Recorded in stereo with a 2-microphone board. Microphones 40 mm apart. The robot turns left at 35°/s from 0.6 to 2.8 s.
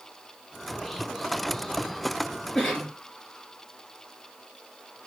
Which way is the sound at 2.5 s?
5° left (ahead or behind).